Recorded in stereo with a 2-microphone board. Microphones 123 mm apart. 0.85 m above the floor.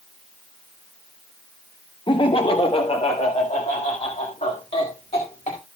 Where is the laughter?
40° left (ahead or behind), 0.9 m; by 5.6 s 60° left (ahead or behind), 2.5 m.